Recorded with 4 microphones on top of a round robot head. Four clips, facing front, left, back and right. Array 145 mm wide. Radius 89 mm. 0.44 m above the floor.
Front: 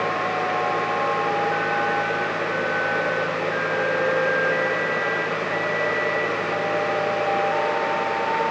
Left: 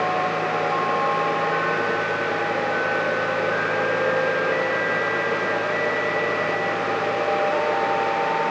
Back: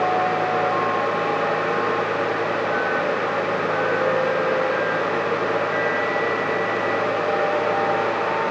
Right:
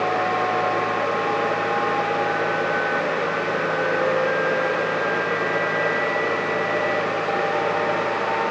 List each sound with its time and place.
Only background noise.